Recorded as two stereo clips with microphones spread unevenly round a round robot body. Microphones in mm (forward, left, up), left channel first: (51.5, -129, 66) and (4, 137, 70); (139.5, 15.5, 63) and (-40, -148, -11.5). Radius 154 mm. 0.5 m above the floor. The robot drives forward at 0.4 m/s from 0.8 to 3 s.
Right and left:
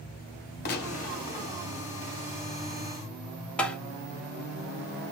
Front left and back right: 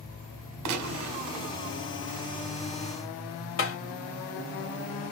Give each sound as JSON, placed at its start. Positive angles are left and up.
{"t": 0.7, "sound": "a gunshot", "azimuth_deg": -140, "distance_m": 1.1}
{"t": 3.6, "sound": "tapping", "azimuth_deg": 5, "distance_m": 1.7}